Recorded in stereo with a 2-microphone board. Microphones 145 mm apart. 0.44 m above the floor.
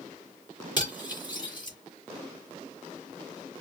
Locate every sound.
0.8 s cutlery clinking: 30° left (ahead or behind), 3.5 m